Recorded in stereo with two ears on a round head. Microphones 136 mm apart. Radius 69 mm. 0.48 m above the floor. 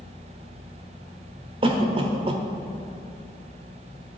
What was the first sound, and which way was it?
A cough, 35° right (ahead or behind).